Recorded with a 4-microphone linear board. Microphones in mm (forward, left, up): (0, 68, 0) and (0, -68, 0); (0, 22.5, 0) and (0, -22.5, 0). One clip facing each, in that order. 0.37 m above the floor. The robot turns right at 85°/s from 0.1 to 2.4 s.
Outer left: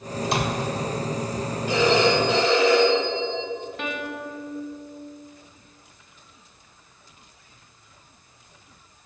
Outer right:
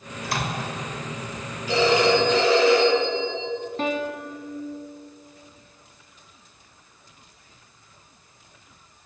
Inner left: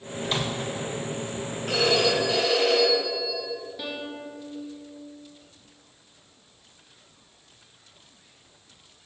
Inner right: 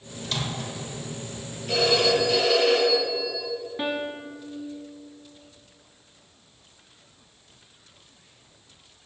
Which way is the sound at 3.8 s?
35° right (ahead or behind).